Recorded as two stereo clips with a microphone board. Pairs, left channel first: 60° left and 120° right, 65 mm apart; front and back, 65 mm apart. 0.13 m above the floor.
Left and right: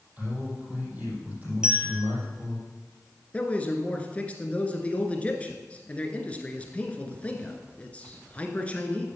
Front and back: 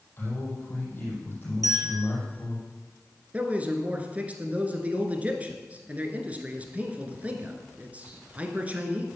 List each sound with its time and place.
0.2 s a man speaking: 55° right, 5.5 m
1.6 s a bell: 160° left, 2.5 m
3.3 s a man speaking: 120° left, 1.8 m